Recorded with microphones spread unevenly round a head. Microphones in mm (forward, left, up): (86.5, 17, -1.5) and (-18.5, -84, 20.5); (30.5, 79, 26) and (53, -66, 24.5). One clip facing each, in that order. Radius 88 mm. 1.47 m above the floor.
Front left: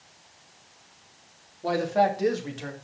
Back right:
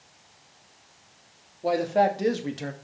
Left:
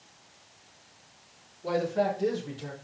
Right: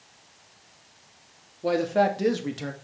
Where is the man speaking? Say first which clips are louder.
Back right 1 dB, right 5 dB; 65° right, 3 m; by 2.7 s 100° right, 1.8 m.